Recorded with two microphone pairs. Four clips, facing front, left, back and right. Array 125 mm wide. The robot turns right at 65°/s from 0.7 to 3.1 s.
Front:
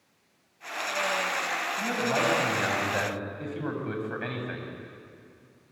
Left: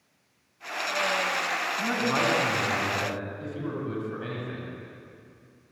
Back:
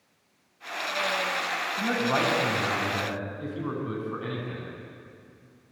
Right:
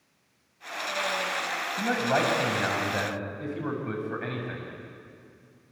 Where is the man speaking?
110° right, 7 m; by 4.7 s 25° right, 7 m.